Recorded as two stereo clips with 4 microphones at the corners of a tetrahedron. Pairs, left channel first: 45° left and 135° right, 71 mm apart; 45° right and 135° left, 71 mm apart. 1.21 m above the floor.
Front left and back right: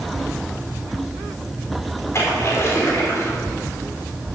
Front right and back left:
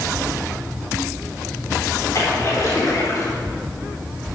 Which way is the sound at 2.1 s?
5° right.